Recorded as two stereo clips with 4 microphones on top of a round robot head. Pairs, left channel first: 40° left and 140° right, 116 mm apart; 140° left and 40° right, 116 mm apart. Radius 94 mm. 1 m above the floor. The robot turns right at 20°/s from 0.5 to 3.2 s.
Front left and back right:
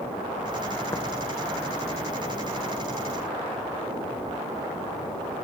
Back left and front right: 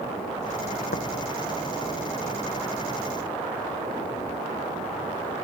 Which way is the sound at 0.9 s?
115° left.